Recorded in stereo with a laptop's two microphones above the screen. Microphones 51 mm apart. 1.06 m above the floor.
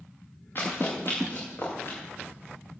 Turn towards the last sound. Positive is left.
turn(degrees=50)  # may be behind; listen again after turning